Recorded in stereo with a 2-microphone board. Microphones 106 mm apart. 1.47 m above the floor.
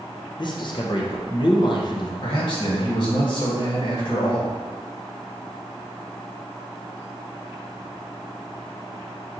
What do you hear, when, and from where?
0.4 s a man speaking: 45° left (ahead or behind), 0.6 m
2.2 s a man speaking: 50° left (ahead or behind), 1.4 m